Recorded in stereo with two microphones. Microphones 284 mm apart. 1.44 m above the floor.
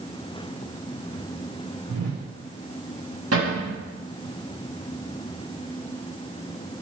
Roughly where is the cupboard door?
Right.